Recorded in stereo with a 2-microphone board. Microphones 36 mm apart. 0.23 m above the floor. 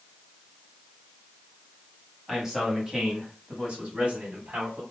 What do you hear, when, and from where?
2.3 s a man speaking: 10° right (ahead or behind), 1.3 m; by 4.8 s 45° right (ahead or behind), 1.6 m